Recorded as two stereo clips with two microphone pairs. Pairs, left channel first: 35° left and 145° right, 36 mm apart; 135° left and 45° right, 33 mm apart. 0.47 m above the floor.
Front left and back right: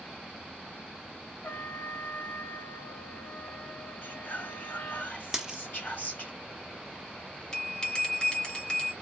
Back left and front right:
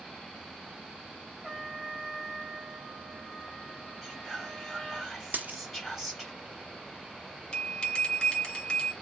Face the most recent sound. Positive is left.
turn(degrees=80)